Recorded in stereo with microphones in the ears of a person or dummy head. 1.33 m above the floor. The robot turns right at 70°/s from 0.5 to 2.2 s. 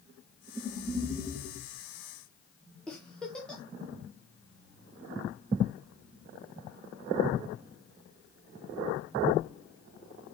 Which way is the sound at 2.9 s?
Centre (ahead or behind).